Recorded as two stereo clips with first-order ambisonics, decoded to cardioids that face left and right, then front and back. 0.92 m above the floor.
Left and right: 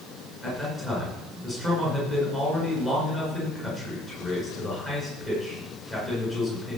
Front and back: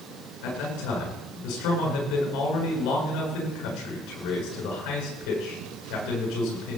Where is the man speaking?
20° left, 9.5 m.